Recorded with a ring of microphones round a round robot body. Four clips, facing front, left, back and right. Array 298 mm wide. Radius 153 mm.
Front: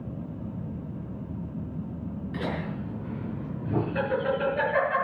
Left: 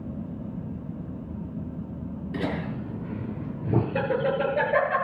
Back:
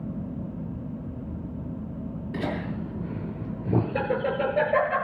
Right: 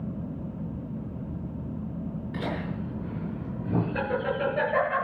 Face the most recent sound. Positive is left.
turn(degrees=135)